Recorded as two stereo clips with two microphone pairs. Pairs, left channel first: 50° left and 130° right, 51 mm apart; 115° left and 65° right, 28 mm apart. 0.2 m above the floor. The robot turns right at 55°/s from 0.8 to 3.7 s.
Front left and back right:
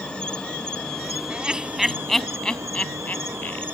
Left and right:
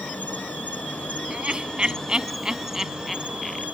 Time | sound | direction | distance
0.0 | an insect | 120° left | ?
1.3 | laughter | 80° right | ?